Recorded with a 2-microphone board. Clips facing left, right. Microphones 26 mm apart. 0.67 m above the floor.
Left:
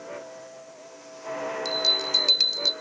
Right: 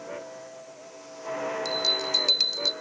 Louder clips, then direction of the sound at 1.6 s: Left 3 dB; 10° left (ahead or behind).